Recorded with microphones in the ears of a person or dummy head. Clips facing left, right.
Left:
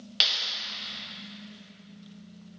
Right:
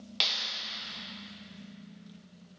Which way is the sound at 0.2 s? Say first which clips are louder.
Left 1 dB; 5° left (ahead or behind).